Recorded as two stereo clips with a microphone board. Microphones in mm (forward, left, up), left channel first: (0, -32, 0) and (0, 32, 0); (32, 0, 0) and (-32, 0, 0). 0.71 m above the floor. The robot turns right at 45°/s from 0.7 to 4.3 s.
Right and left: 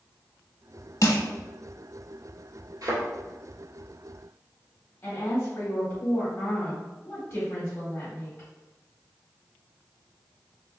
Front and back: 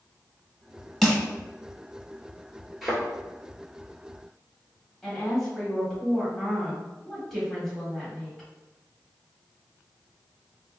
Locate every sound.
1.0 s crushing: 85° right, 0.8 m; by 1.2 s 80° right, 0.8 m
2.8 s a thud: 95° left, 1.5 m; by 3.0 s 105° left, 1.5 m
5.0 s a woman speaking: 80° right, 1.3 m